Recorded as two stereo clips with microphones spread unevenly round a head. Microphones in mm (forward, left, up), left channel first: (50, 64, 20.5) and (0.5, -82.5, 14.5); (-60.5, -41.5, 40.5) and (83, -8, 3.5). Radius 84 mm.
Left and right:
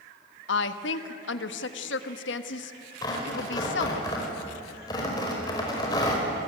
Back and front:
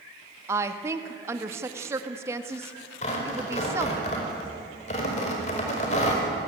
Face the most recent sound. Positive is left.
turn(degrees=140)